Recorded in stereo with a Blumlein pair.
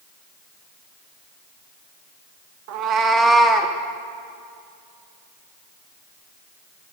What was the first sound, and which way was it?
A cat meowing, 45° right.